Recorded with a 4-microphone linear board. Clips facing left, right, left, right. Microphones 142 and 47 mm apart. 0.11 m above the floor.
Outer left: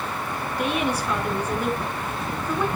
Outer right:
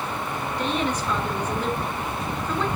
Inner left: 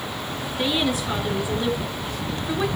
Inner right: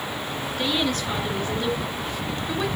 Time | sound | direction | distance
0.6 | a woman speaking | 10° left (ahead or behind) | 1.8 m